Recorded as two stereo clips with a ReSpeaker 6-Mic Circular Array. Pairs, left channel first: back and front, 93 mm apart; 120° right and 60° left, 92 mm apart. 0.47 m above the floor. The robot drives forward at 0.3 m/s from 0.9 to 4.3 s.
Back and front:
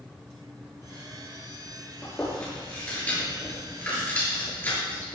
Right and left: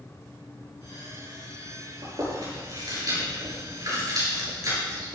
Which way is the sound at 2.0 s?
110° left.